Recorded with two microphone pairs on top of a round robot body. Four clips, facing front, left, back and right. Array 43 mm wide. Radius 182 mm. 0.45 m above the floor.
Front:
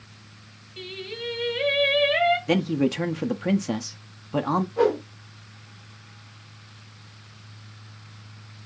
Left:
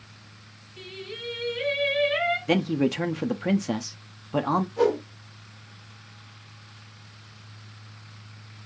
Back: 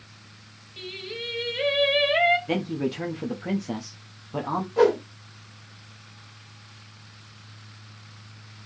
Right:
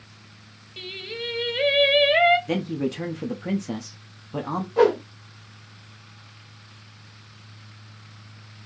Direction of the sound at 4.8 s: 110° right.